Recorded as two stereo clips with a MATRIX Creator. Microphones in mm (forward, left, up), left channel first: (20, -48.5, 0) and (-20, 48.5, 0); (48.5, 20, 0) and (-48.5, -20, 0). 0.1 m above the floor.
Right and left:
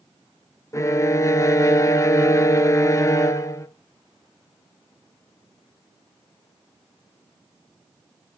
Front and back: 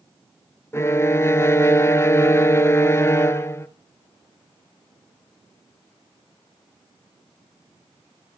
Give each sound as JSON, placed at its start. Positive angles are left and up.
{"t": 0.7, "sound": "a violin", "azimuth_deg": -25, "distance_m": 0.6}